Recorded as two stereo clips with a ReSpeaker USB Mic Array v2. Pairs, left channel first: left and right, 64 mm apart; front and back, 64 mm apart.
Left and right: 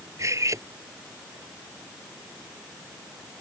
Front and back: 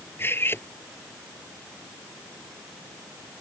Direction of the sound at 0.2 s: 55° right.